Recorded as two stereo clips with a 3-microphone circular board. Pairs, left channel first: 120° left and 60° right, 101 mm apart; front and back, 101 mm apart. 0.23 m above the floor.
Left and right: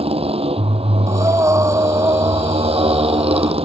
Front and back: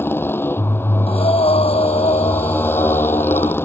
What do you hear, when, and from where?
0.0 s a motorcycle: 65° right
1.1 s breathing: straight ahead